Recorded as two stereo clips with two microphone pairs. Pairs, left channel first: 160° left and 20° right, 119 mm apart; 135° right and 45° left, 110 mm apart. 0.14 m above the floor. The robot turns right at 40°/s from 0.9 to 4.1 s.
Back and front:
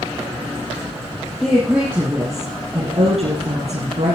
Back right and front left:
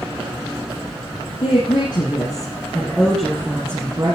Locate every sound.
1.4 s a woman speaking: 110° right, 4 m; by 4.2 s 5° right, 4 m